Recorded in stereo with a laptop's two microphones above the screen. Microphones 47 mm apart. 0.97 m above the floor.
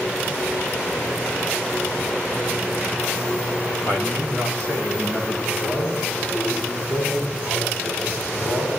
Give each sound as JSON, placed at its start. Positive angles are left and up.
{"t": 3.9, "sound": "a man speaking", "side_deg": 55, "distance_m": 5.5}
{"t": 5.5, "sound": "a man speaking", "side_deg": 40, "distance_m": 8.5}